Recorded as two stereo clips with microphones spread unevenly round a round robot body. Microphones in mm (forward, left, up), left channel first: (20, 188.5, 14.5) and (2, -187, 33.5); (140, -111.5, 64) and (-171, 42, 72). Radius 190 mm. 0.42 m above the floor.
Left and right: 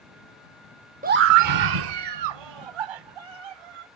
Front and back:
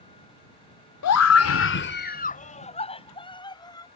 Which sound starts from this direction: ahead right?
A scream, at 1.0 s.